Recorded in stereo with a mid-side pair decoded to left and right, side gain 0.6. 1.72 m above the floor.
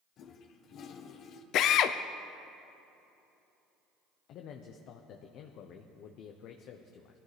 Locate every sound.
0.2 s a toilet flushing: 50° left, 1.1 m
1.5 s a drill: 60° left, 0.6 m
4.3 s a man speaking: 60° left, 0.9 m